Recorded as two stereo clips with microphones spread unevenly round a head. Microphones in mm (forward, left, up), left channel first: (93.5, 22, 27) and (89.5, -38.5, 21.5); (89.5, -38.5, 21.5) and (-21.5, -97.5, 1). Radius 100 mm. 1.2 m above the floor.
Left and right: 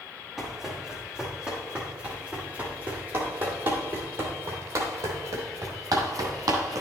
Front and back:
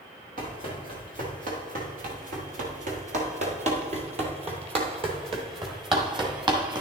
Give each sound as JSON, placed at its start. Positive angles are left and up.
{"t": 0.4, "sound": "running footsteps", "azimuth_deg": 175, "distance_m": 2.5}